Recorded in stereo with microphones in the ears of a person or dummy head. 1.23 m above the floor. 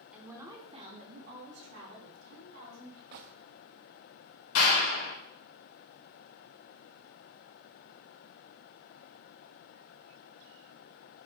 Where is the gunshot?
45° right (ahead or behind), 0.8 m.